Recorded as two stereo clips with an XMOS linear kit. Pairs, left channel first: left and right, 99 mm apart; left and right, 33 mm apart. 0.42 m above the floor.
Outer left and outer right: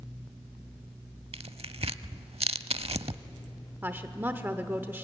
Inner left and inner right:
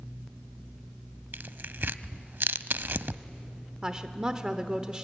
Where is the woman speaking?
20° right (ahead or behind), 1.0 m.